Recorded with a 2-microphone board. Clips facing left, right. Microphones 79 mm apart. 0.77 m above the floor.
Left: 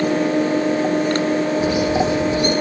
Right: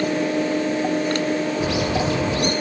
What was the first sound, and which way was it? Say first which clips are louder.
A bird: left 4 dB; 80° right.